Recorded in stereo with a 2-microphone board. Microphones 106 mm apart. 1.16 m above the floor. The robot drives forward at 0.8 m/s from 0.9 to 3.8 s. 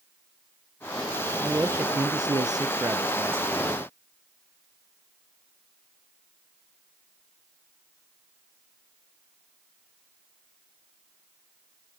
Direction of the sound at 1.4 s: 20° right (ahead or behind).